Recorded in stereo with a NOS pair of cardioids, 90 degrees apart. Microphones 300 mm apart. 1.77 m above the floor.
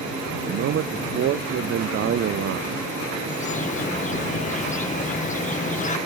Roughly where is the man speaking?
Ahead right.